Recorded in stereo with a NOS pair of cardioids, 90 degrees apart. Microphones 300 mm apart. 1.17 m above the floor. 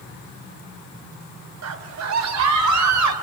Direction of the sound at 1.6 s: 60° right.